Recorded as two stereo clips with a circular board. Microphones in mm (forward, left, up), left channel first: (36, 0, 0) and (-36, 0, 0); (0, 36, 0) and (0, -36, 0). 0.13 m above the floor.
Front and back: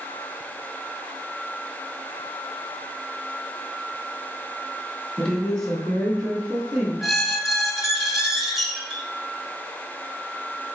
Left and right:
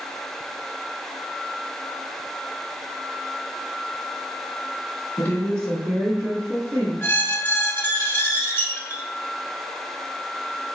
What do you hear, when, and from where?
5.2 s a woman speaking: 75° left, 1.4 m; by 6.9 s 90° right, 1.9 m
7.0 s a squeak: 95° left, 0.9 m